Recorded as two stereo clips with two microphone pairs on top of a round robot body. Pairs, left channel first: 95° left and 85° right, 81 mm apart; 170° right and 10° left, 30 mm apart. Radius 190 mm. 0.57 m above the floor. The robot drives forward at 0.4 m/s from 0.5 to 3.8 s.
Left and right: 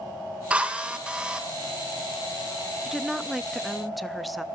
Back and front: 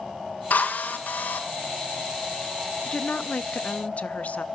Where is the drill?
160° right, 1.4 m; by 1.4 s 165° right, 1.8 m.